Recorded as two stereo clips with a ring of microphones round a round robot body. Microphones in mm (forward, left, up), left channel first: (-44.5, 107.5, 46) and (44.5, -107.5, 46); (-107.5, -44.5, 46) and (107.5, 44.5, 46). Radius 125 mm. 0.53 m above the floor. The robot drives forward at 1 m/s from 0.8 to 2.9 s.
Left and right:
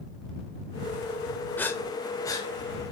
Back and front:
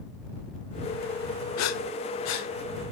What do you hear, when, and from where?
1.6 s breathing: 165° right, 0.9 m; by 2.5 s 175° right, 1.8 m